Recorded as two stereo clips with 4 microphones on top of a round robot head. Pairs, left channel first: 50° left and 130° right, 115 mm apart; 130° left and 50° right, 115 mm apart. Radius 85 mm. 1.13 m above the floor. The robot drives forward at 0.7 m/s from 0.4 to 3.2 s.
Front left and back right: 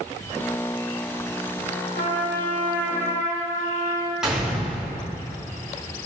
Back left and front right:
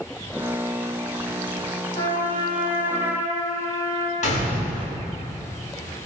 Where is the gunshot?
145° left, 3.5 m.